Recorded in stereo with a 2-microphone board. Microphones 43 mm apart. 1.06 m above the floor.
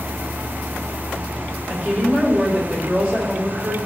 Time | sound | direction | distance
1.7 | a woman speaking | 25° right (ahead or behind) | 5 m